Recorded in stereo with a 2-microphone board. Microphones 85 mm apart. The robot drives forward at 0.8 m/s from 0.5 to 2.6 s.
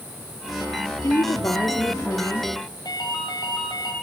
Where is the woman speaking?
45° left (ahead or behind), 1.9 m; by 2.5 s 35° left (ahead or behind), 2.5 m.